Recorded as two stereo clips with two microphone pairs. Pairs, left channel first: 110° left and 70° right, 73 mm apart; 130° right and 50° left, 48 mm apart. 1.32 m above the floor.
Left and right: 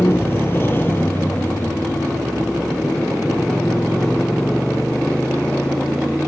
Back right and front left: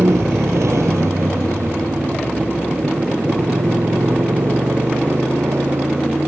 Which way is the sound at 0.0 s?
55° left.